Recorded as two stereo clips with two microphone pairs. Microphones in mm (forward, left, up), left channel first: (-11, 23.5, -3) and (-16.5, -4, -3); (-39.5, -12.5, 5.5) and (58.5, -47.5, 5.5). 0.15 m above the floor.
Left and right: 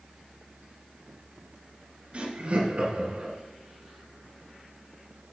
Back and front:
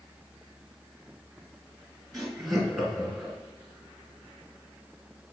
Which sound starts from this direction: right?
Laughter, at 2.1 s.